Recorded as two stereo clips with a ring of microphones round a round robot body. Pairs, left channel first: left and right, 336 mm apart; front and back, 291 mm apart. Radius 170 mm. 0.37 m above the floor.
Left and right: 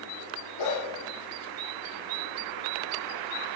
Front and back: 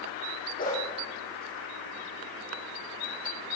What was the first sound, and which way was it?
A dog barking, 60° left.